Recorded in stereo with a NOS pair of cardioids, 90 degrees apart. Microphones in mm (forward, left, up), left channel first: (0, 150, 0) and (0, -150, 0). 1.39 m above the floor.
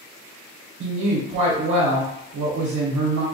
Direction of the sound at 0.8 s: 65° right.